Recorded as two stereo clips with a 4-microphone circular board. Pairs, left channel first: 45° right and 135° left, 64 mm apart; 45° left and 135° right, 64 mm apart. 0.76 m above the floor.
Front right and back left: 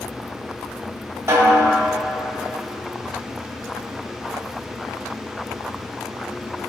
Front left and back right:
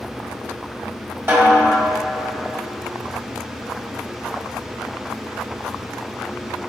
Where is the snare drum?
175° left, 3 m.